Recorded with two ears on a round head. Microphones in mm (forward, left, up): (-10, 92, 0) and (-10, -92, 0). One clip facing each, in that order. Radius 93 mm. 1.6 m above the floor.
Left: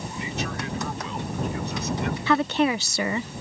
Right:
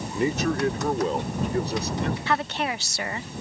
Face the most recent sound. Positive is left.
turn(degrees=70)  # may be behind; listen again after turning